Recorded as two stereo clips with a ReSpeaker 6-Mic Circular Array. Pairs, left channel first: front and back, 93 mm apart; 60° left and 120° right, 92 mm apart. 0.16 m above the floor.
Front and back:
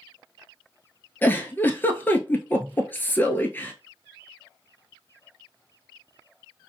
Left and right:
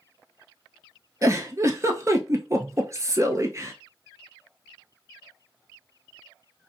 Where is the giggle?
65° right, 0.8 m.